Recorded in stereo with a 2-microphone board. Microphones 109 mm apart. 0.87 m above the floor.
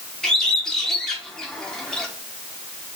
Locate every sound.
0.2 s a bird: 5° left (ahead or behind), 0.8 m